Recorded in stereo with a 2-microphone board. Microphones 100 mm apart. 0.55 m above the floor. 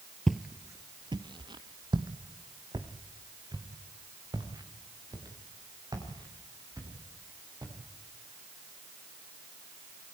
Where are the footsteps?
5° left (ahead or behind), 0.7 m; by 7.7 s 40° right (ahead or behind), 8.5 m.